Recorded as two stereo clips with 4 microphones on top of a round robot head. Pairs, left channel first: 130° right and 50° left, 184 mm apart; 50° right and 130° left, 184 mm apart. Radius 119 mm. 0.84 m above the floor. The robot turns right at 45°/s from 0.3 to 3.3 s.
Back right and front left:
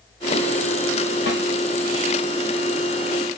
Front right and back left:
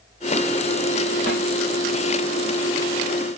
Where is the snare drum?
95° right, 1.5 m; by 1.4 s 90° right, 1.5 m.